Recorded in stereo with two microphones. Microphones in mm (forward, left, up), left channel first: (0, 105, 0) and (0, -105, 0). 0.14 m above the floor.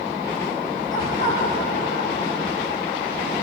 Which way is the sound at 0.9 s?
75° left (ahead or behind).